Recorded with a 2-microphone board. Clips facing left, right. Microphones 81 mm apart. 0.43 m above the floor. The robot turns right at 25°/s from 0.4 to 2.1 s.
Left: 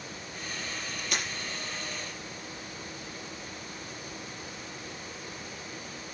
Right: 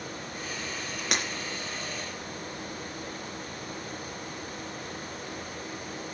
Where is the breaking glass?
80° right, 3.5 m.